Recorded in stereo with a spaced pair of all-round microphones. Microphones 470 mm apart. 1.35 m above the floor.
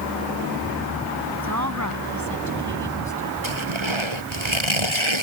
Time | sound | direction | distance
1.3 | a woman speaking | 35° right (ahead or behind) | ?
3.4 | tearing paper | 70° right (ahead or behind) | ?